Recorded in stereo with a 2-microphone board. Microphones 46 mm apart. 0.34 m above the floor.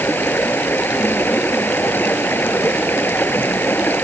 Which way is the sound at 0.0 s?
45° left (ahead or behind).